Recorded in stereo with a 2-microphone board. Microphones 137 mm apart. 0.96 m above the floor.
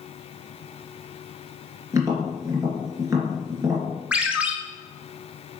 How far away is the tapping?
About 3 m.